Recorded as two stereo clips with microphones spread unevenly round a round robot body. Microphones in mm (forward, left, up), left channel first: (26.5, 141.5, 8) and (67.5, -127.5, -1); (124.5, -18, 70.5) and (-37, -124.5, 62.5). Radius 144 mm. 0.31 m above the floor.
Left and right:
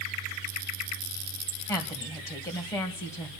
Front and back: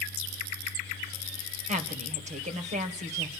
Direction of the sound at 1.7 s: Straight behind.